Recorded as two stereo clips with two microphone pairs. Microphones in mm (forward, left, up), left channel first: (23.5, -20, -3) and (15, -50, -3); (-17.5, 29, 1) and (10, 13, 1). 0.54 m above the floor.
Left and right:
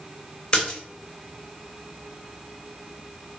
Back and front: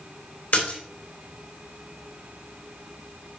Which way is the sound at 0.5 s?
135° left.